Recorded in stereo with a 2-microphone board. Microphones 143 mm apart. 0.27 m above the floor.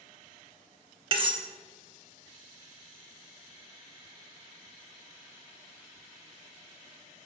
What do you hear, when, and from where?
1.1 s cutlery clinking: 35° right (ahead or behind), 0.6 m